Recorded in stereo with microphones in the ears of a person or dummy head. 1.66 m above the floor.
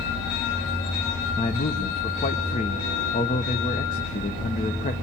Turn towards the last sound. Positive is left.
turn(degrees=30)  # may be behind; listen again after turning